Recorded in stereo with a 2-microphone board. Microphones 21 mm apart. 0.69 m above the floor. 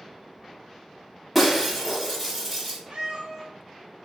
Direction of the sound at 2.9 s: 60° right (ahead or behind).